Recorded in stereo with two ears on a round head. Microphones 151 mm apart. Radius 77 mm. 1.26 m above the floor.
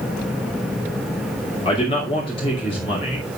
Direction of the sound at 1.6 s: 30° left (ahead or behind).